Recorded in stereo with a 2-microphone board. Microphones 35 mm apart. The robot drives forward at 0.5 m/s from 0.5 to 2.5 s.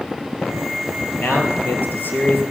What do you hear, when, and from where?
1.2 s a man speaking: 60° left (ahead or behind), 3 m; by 2.4 s 65° left (ahead or behind), 3 m